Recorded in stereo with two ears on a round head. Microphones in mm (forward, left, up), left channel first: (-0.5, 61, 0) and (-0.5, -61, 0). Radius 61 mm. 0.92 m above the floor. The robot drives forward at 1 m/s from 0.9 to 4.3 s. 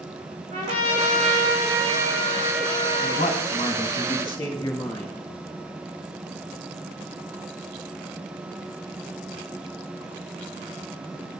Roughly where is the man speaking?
Left.